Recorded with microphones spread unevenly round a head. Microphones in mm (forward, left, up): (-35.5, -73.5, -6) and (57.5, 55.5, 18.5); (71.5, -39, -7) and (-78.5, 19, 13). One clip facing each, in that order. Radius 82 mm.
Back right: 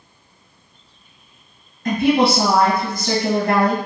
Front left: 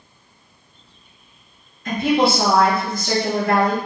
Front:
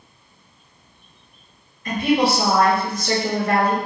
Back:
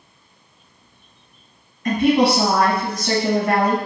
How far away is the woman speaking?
About 1.2 m.